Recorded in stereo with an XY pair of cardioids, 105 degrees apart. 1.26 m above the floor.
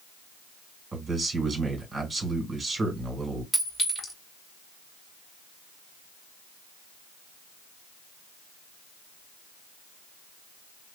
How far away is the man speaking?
About 1.9 m.